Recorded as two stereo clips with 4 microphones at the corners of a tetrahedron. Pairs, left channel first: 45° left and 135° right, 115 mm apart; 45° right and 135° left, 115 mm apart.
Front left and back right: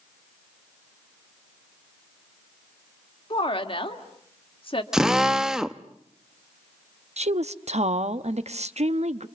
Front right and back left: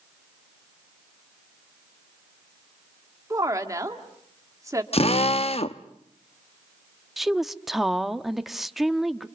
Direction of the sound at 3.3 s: 75° left.